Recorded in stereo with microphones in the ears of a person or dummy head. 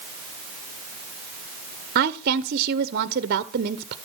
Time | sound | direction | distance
1.9 | a woman speaking | 45° right (ahead or behind) | 0.5 m